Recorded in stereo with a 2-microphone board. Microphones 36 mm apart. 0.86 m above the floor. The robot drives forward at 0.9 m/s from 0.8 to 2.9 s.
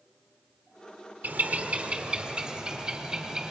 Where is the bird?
55° right (ahead or behind), 0.9 m; by 3.5 s 20° right (ahead or behind), 2 m.